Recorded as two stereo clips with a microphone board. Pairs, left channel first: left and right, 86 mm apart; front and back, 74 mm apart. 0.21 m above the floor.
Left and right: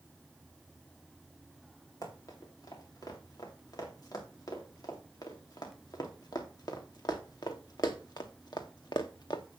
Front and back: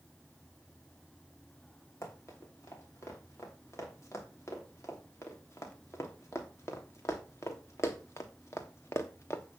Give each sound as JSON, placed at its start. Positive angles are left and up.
{"t": 2.0, "sound": "running footsteps", "azimuth_deg": 50, "distance_m": 5.0}